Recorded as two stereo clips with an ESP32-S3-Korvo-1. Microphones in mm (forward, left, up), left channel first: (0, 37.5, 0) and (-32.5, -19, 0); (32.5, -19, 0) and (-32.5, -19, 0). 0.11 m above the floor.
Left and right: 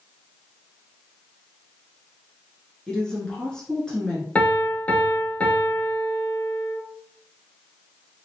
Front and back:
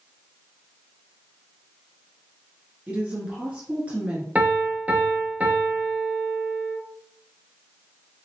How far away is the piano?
About 0.8 m.